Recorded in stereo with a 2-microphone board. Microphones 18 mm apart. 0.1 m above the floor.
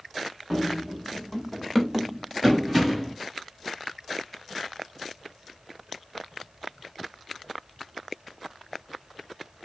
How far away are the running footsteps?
About 1.6 m.